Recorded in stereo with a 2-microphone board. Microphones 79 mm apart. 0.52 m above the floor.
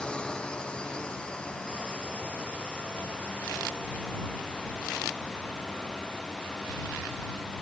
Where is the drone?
10° left (ahead or behind).